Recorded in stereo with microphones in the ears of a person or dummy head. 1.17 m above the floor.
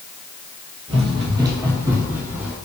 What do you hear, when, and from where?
0.9 s running footsteps: 30° right (ahead or behind), 1.7 m; by 2.6 s 10° right (ahead or behind), 3 m